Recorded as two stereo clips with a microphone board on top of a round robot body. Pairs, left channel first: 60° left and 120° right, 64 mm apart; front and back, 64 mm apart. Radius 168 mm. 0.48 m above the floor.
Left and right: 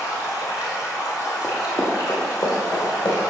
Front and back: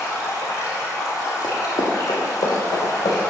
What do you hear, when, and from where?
0.0 s running water: 30° left, 0.8 m
1.4 s running footsteps: straight ahead, 0.6 m; by 3.2 s 5° left, 1.7 m